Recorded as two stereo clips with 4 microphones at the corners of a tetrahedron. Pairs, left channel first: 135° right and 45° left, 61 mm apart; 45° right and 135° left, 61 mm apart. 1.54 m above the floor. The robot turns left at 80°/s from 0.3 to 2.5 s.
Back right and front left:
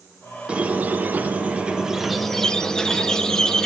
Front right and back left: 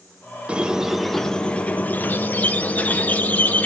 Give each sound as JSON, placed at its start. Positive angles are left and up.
{"t": 0.5, "sound": "a squeak", "azimuth_deg": 90, "distance_m": 0.5}